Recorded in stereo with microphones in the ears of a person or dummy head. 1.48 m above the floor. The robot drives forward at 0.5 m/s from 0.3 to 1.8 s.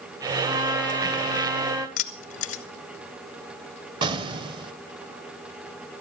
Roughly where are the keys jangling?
Left.